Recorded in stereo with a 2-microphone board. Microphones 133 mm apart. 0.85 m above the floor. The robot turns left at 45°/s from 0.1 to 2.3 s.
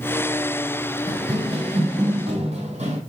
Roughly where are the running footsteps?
Right.